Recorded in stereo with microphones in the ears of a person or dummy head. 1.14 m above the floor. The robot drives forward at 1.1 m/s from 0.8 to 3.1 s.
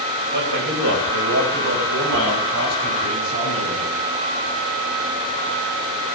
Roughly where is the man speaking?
Right.